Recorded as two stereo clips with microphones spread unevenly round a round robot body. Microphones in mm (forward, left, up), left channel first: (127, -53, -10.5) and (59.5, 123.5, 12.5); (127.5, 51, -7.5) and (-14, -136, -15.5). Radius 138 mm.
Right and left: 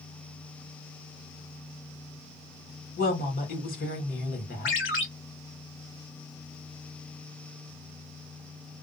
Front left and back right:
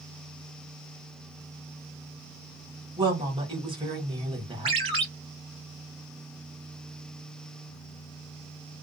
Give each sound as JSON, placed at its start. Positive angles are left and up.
{"t": 3.0, "sound": "a woman speaking", "azimuth_deg": -65, "distance_m": 1.4}
{"t": 4.7, "sound": "a ringtone", "azimuth_deg": -60, "distance_m": 1.1}